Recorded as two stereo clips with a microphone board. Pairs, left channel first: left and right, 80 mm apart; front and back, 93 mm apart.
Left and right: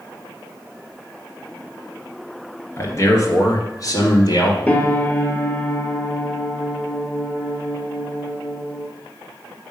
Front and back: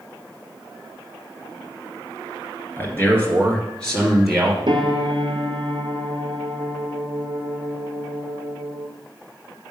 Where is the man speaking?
55° left, 2 m; by 4.6 s 95° left, 2.5 m.